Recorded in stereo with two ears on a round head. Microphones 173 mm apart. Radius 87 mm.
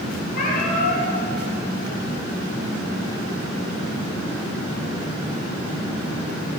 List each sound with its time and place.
0.3 s a cat meowing: 45° left (ahead or behind), 8.5 m